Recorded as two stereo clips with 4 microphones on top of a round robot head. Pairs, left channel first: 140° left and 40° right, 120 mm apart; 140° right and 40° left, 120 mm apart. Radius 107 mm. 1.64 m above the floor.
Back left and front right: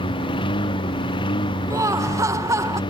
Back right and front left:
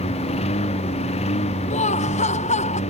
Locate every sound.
0.0 s a lawn mower: 170° right
1.7 s laughter: 110° right